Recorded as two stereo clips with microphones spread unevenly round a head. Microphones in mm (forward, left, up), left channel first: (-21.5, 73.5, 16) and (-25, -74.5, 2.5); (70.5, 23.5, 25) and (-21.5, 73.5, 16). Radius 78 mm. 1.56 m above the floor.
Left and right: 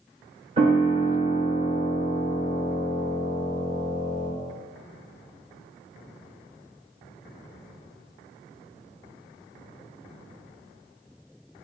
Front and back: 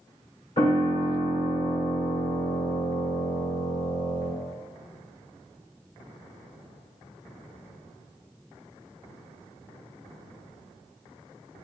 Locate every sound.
0.6 s a piano: 40° right, 1.7 m